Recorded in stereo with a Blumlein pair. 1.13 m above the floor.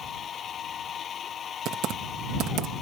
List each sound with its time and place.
0.0 s a machine running: 25° left
1.6 s typing on a keyboard: 35° right